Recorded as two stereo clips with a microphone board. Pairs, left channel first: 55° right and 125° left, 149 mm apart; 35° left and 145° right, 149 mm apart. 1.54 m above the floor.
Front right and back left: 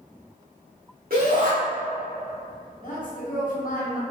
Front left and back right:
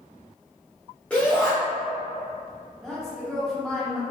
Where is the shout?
115° left, 1.0 m.